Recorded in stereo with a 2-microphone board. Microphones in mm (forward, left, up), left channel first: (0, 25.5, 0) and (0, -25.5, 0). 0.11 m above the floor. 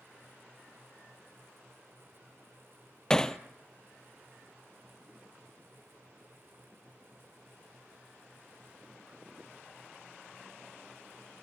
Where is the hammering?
15° left (ahead or behind), 0.7 m.